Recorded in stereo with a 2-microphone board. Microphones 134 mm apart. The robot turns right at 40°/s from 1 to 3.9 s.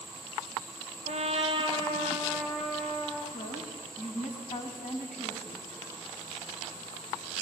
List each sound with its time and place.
1.1 s a trumpet: 65° right, 3.5 m; by 3.2 s 20° left, 3.5 m
3.3 s a woman speaking: 70° left (ahead or behind), 4 m; by 5.7 s 60° left (ahead or behind), 4 m